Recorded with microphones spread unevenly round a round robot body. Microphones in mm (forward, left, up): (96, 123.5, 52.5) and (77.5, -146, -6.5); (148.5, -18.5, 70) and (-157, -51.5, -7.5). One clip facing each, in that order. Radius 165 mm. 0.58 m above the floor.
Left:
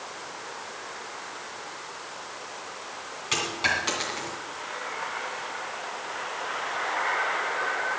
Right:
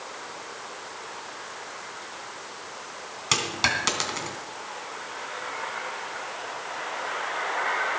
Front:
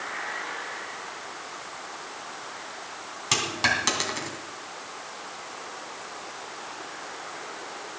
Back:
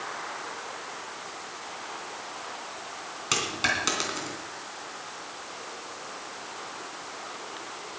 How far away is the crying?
No crying in this recording.